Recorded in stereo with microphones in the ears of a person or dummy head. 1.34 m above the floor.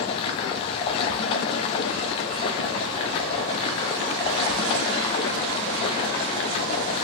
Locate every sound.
0.0 s running water: 30° left (ahead or behind), 0.8 m